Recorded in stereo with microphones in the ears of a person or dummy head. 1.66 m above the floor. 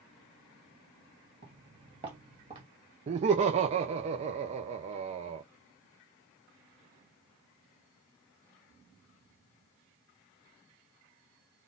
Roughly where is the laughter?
Right.